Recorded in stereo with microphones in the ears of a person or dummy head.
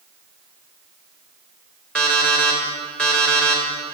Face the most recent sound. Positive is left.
turn(degrees=5)  # may be behind; listen again after turning